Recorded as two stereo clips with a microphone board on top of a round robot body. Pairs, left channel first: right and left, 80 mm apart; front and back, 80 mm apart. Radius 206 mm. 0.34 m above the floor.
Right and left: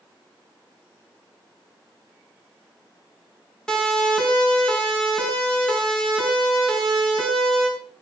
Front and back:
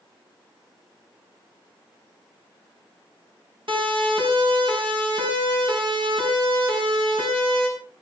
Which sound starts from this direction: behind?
A siren, at 3.7 s.